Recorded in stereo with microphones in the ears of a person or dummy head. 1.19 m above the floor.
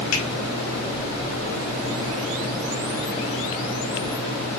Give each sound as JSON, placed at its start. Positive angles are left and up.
{"t": 0.1, "sound": "a finger snap", "side_deg": 85, "distance_m": 5.5}